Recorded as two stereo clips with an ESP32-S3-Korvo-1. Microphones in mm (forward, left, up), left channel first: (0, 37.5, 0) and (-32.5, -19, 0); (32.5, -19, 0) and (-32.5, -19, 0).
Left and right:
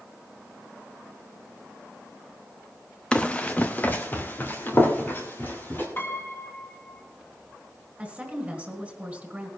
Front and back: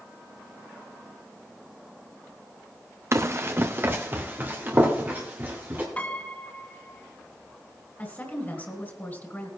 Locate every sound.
3.1 s running footsteps: 135° left, 0.7 m; by 5.9 s 115° left, 3.5 m
6.0 s a piano: 55° left, 1.9 m
8.0 s a woman speaking: 50° right, 1.6 m